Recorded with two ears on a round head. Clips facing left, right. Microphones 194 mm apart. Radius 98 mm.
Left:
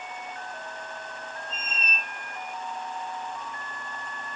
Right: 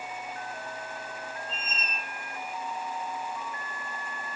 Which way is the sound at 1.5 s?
20° left (ahead or behind).